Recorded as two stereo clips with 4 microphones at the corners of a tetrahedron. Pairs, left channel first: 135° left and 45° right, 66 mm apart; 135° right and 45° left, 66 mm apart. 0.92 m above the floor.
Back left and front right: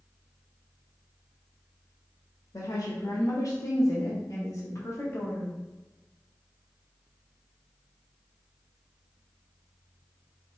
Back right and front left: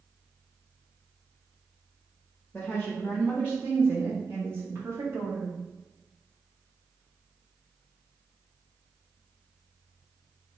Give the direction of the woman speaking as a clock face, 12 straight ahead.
7 o'clock.